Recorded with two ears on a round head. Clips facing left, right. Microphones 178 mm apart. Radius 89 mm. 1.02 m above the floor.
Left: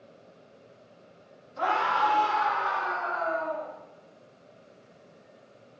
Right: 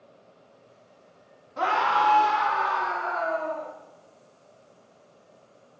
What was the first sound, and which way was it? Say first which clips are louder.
A scream: right 2 dB; 70° right (ahead or behind).